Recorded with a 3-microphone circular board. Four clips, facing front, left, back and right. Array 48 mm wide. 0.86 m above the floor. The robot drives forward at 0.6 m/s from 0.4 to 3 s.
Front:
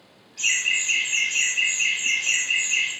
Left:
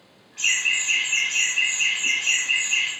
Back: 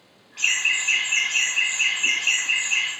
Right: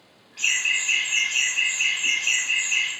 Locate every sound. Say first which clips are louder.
0.4 s laughter: left 1 dB, back 1 dB; 170° right, 1.4 m; by 2.9 s 175° right, 3 m